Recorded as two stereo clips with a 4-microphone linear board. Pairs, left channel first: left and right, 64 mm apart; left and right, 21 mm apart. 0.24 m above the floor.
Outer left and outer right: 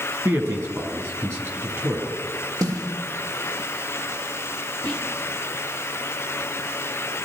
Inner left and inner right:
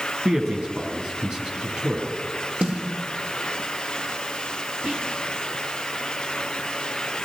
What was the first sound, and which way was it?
A man speaking, 50° right (ahead or behind).